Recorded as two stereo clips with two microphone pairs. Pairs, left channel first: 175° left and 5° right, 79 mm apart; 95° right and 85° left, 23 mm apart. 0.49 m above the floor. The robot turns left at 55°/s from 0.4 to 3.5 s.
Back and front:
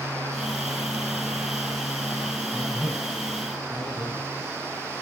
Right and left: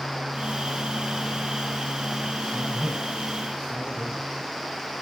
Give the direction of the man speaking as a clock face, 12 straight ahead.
8 o'clock.